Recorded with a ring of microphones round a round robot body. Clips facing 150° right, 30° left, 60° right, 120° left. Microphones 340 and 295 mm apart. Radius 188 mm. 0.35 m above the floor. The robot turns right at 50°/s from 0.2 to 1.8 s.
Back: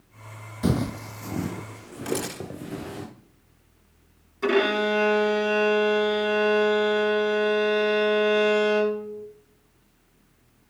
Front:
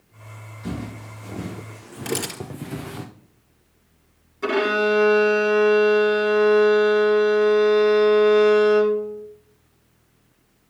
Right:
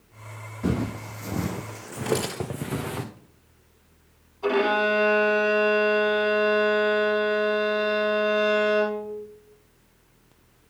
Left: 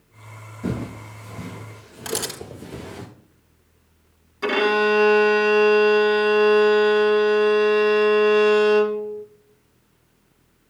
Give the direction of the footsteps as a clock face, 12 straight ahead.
5 o'clock.